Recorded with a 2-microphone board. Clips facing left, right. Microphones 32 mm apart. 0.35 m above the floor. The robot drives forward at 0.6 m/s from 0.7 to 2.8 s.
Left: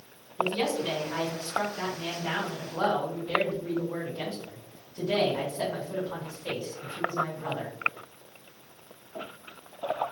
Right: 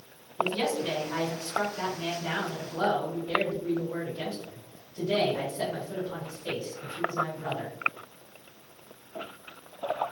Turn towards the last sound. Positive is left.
turn(degrees=0)  # may be behind; listen again after turning